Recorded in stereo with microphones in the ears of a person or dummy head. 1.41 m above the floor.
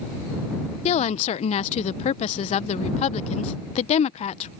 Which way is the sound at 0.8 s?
35° left (ahead or behind).